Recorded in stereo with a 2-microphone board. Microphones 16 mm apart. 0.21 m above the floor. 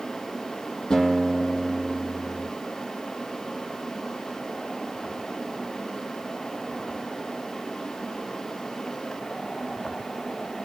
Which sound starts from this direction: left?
A guitar, at 0.9 s.